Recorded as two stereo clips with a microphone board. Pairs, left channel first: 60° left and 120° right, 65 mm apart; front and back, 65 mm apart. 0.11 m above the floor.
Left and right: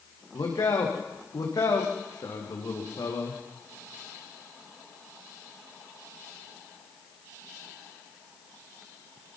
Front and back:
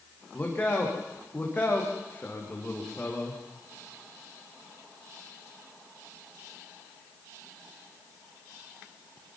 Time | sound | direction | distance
0.3 | a man speaking | 65° left | 6 m